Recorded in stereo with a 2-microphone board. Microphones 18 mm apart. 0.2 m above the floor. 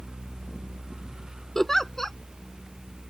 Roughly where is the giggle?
Left.